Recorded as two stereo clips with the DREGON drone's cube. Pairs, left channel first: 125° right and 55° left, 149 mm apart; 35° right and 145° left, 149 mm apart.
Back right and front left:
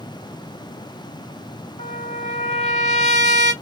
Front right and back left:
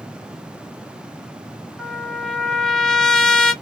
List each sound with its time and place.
1.8 s a trumpet: 120° right, 1.1 m